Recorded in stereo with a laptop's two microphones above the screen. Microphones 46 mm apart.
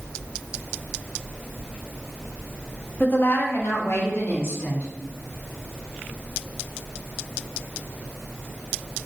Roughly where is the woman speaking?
Left.